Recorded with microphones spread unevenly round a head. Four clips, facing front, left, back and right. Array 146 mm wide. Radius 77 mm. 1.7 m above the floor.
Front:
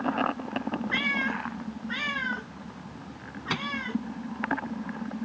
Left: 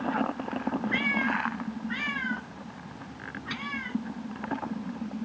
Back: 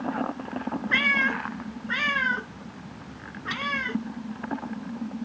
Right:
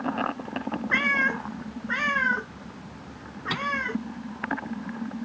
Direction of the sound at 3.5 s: 40° right.